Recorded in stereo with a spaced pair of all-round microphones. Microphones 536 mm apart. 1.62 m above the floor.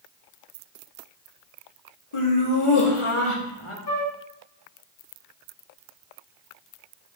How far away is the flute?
About 0.6 m.